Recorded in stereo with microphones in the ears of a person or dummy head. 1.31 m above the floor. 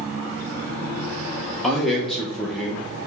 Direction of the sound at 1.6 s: 5° left (ahead or behind).